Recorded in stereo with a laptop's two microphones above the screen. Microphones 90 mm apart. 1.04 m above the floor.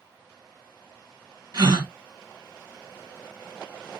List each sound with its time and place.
1.5 s a gasp: 55° right (ahead or behind), 2.0 m